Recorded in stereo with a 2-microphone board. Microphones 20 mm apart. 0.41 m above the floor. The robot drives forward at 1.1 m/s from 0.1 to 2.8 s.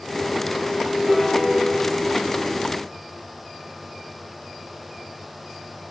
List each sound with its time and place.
1.1 s a piano: 35° right (ahead or behind), 6.5 m